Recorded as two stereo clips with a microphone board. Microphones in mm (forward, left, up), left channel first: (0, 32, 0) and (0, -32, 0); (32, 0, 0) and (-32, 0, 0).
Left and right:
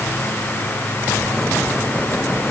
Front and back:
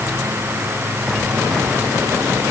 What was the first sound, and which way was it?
Only background noise.